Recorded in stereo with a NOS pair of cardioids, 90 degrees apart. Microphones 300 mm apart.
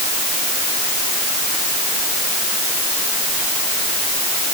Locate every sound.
Only background noise.